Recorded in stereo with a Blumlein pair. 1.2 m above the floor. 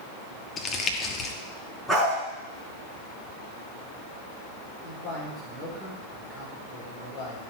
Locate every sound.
0.6 s crumpling: 20° left, 1.3 m
1.9 s a dog barking: straight ahead, 5 m
4.8 s a man speaking: 20° left, 4.5 m